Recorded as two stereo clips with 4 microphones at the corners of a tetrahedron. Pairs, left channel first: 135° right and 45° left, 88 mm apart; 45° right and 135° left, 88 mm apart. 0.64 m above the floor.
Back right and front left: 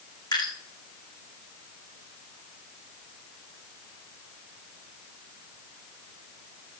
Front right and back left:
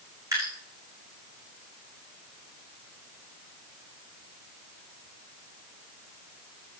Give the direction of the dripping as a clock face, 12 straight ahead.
6 o'clock.